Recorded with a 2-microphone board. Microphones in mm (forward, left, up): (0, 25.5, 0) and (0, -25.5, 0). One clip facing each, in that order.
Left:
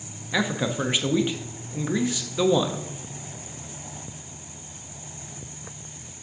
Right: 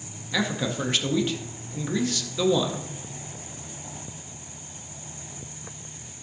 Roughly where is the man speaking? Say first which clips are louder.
Left 2 dB; centre.